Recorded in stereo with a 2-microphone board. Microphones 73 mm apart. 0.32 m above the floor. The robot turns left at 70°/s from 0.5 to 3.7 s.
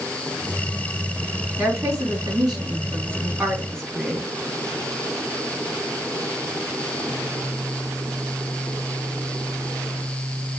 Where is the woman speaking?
35° right, 3 m; by 4.3 s 175° left, 3 m.